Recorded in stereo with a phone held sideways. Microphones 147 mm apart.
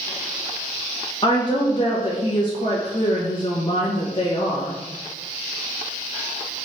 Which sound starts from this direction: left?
A woman speaking, at 1.2 s.